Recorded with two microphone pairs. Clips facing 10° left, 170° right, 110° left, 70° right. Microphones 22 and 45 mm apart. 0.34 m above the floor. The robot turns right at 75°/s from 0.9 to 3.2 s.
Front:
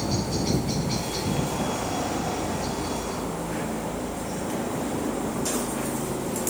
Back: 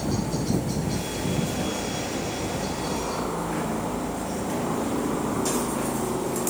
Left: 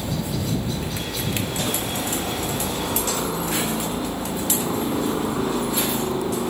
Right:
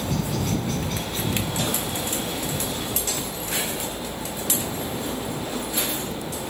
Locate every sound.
0.0 s a helicopter: 45° right; by 6.5 s 130° left